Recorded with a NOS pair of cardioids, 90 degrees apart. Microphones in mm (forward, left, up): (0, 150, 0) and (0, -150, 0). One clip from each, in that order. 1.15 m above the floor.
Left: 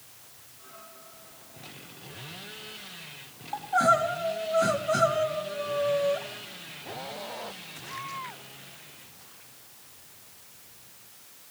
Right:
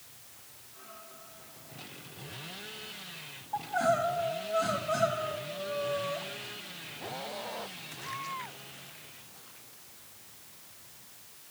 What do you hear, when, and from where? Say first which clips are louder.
3.5 s crying: left 6 dB; 45° left, 2.5 m